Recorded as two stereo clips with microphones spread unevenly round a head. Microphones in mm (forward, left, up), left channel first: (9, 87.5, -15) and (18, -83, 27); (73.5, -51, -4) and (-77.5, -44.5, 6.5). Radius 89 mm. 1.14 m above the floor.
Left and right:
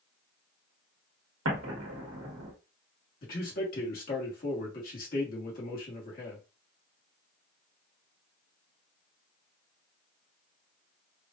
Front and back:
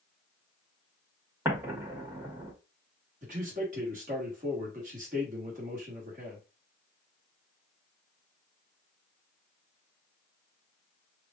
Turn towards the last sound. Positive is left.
turn(degrees=125)